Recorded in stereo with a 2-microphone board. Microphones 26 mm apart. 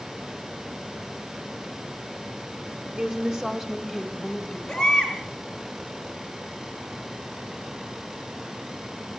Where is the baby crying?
20° left (ahead or behind), 4.5 m.